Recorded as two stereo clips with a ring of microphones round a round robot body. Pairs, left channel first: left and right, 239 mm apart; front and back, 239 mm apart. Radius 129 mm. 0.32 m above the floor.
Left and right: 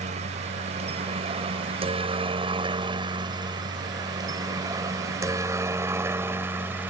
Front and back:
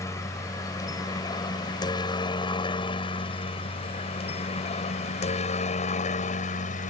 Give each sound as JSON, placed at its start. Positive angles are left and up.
{"t": 0.0, "sound": "a helicopter", "azimuth_deg": -65}